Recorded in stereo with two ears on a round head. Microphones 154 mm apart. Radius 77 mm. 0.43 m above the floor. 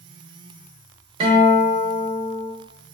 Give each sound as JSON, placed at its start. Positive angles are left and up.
{"t": 1.2, "sound": "a guitar", "side_deg": -35, "distance_m": 1.0}